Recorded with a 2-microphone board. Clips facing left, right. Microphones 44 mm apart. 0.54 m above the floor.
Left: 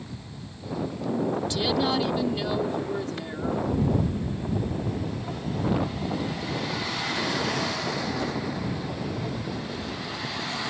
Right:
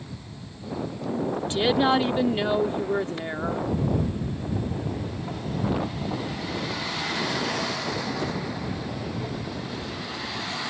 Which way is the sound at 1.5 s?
30° right (ahead or behind).